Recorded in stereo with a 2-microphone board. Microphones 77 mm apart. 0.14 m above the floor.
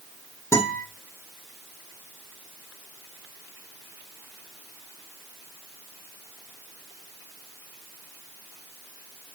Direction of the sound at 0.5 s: 40° left (ahead or behind).